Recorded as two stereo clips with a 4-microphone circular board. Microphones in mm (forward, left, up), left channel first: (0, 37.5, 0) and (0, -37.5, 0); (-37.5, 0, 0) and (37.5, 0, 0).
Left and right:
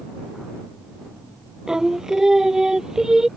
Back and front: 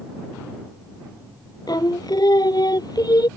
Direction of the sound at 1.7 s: 175° right.